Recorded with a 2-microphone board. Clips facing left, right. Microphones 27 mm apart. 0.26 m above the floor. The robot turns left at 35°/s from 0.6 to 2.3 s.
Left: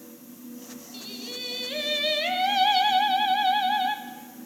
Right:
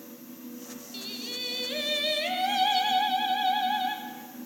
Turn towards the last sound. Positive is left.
turn(degrees=155)